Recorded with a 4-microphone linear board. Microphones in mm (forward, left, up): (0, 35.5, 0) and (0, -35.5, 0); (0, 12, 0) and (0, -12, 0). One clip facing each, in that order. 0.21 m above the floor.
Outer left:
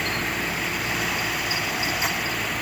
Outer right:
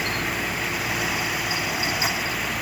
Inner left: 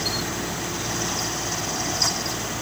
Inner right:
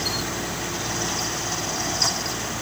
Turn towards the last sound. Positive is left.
No sound to turn to.